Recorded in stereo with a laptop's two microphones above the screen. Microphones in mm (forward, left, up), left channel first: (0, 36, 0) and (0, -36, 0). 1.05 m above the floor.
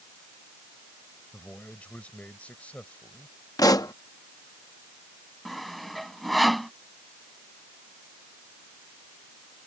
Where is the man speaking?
20° left (ahead or behind).